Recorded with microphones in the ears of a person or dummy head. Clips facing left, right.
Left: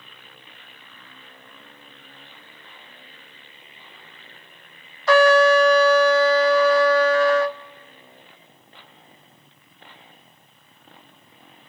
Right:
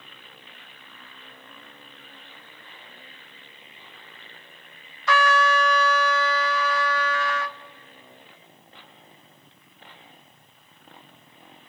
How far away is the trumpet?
About 0.5 m.